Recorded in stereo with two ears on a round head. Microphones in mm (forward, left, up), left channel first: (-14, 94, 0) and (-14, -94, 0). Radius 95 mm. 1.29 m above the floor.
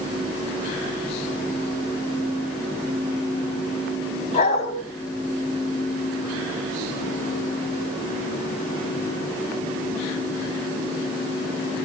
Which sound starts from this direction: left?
A dog barking, at 4.3 s.